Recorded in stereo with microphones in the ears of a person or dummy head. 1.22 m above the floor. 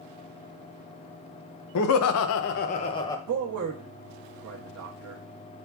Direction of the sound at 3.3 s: 70° right (ahead or behind).